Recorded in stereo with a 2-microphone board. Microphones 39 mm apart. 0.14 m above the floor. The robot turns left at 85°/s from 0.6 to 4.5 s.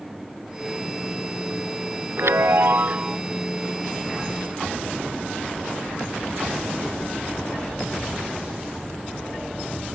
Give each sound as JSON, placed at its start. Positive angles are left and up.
{"t": 2.2, "sound": "a chime", "azimuth_deg": -75}